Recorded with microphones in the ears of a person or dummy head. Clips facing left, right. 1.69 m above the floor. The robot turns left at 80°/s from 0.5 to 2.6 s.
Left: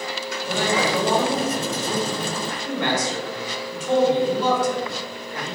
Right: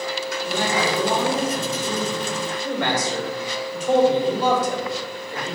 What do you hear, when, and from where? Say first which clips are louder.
0.5 s a man speaking: left 1 dB; 110° left, 1.6 m; by 5.6 s 60° right, 1.6 m